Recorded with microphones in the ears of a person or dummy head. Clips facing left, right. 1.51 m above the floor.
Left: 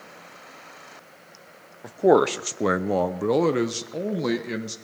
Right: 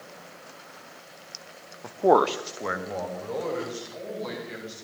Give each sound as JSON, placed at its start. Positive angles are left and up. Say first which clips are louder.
{"t": 1.8, "sound": "a man speaking", "louder": "left 3 dB", "side_deg": 15, "distance_m": 0.7}